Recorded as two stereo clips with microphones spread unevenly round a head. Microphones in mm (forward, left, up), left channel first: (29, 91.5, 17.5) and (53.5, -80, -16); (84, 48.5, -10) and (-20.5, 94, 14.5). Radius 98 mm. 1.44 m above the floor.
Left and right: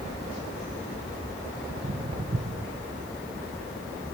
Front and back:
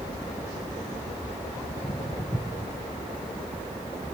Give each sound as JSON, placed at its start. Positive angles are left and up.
{"t": 1.7, "sound": "footsteps", "azimuth_deg": -60, "distance_m": 1.6}